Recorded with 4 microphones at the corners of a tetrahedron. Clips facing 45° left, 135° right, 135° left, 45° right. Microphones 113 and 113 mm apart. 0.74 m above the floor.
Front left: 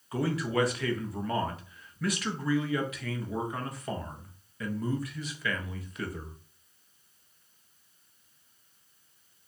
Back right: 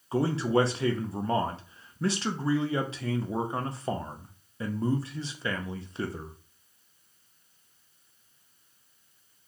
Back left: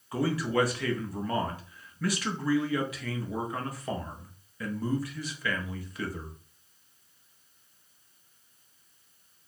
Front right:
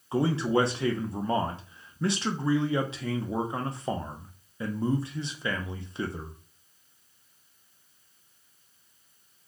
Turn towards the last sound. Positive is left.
turn(degrees=-90)